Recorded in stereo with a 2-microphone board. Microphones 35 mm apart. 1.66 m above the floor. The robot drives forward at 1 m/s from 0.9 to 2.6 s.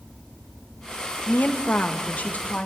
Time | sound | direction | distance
1.3 | a woman speaking | 65° left (ahead or behind) | 1.8 m